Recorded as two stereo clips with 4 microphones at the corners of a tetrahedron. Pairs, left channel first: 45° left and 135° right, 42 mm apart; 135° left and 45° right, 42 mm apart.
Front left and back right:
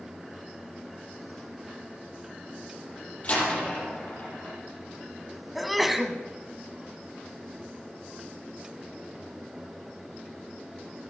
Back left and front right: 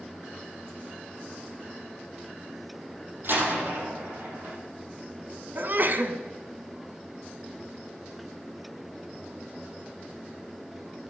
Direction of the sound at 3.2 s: 15° right.